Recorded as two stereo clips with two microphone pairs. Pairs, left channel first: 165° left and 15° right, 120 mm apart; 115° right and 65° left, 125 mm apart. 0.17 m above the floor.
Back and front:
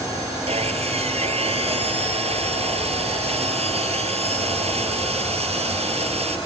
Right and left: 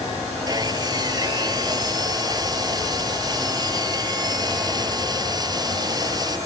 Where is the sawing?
10° left.